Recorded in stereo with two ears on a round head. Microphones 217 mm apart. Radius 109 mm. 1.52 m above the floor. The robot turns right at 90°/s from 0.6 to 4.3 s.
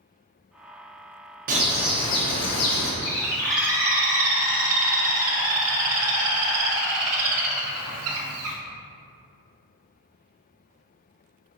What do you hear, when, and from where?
1.5 s a bird: 35° right, 0.5 m; by 2.9 s 90° left, 0.5 m
3.0 s a bird: 135° left, 0.6 m; by 8.6 s 110° right, 0.6 m